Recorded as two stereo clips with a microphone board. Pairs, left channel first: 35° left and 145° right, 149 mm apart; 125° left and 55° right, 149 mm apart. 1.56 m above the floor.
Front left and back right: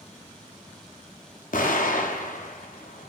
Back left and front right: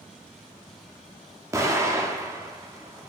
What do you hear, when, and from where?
1.5 s an explosion: 15° left, 0.5 m